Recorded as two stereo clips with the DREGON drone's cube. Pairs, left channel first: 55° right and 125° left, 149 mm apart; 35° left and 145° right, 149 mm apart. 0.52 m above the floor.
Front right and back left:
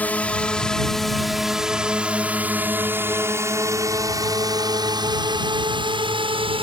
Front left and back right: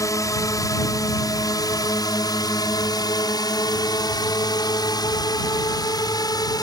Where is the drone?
10° left; by 6.6 s 90° left.